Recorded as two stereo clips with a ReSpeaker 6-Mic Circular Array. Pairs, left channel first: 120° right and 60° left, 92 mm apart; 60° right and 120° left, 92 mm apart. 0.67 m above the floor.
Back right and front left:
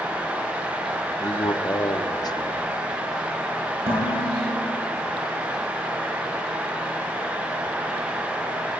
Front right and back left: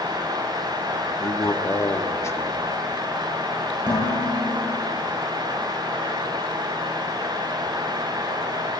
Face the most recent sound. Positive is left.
turn(degrees=80)